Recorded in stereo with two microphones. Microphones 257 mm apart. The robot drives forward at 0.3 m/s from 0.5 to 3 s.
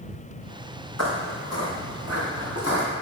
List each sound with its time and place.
1.0 s footsteps: 75° left (ahead or behind), 1.7 m; by 2.9 s 60° left (ahead or behind), 4 m